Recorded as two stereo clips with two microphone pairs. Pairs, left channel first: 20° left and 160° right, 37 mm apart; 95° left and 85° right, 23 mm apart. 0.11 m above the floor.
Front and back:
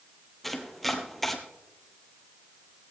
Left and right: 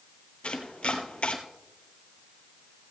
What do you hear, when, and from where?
0.4 s chopping: 100° left, 1.5 m